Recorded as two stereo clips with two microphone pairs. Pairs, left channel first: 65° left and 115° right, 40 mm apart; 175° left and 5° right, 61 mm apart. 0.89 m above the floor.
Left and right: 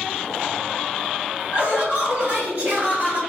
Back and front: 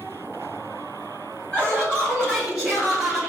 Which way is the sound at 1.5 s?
120° right.